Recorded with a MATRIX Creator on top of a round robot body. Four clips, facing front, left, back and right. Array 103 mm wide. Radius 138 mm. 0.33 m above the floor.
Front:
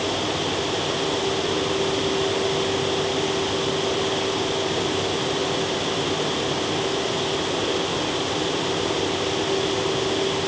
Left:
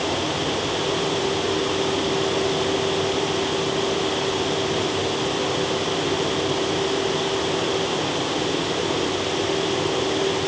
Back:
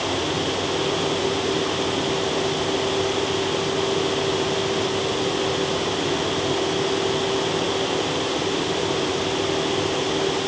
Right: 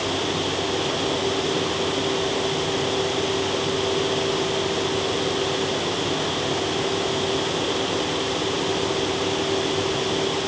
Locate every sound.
Only background noise.